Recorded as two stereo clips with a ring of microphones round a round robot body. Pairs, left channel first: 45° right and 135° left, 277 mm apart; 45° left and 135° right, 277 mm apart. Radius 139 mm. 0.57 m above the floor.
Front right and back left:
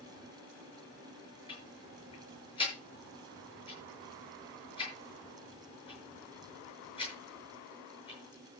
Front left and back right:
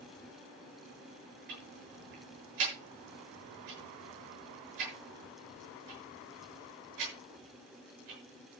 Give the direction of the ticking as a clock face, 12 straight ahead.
4 o'clock.